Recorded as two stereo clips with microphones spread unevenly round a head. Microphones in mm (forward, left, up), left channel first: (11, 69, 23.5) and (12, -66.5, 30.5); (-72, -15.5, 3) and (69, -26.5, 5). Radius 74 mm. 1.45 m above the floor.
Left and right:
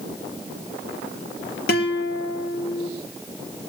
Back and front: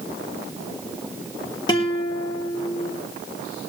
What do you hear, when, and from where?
1.7 s a guitar: 110° left, 3.5 m